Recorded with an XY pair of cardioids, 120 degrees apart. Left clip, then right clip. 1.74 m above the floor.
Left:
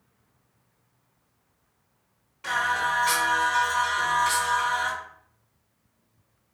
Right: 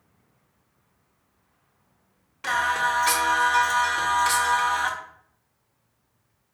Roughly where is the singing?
Ahead right.